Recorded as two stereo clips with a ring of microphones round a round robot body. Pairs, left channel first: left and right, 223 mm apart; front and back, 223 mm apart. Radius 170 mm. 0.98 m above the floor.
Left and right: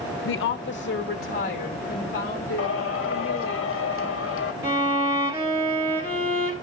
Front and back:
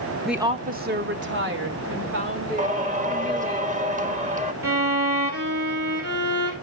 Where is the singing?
125° left, 1.3 m.